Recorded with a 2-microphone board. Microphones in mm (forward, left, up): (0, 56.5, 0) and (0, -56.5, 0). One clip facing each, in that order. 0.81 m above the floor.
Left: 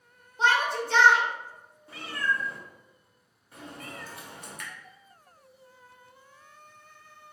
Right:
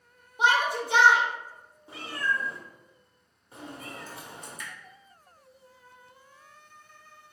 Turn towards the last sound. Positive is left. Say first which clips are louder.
# even
turn(degrees=60)  # may be behind; listen again after turning